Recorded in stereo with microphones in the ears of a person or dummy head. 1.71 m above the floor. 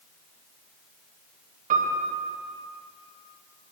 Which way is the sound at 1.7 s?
45° right (ahead or behind).